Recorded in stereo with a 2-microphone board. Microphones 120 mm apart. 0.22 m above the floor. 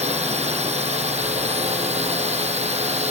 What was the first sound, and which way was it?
A drone, 65° right (ahead or behind).